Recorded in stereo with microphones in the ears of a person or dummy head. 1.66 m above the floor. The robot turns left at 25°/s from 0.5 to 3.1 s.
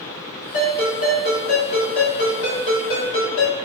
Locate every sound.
0.5 s a ringtone: 125° left, 1.6 m; by 3.6 s 60° left, 1.6 m